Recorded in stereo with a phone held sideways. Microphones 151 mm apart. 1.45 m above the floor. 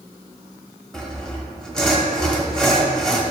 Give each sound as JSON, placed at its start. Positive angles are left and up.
{"t": 0.9, "sound": "sawing", "side_deg": 5, "distance_m": 1.1}